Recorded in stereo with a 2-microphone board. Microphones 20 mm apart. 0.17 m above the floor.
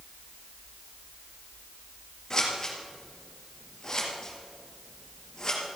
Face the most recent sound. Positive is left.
turn(degrees=30)  # may be behind; listen again after turning